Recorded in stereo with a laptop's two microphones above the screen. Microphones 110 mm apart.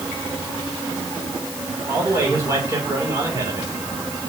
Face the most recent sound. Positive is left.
turn(degrees=-30)  # may be behind; listen again after turning